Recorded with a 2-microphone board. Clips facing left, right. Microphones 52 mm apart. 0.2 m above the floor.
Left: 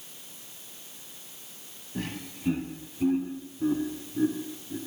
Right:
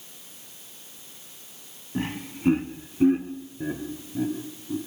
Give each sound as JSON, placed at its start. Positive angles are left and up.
{"t": 1.9, "sound": "laughter", "side_deg": -30, "distance_m": 1.2}